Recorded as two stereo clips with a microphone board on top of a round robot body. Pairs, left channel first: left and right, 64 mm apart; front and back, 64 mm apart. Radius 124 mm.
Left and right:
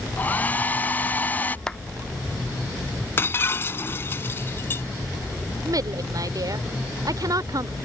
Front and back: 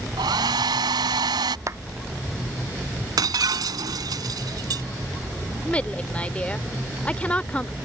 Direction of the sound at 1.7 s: 165° left.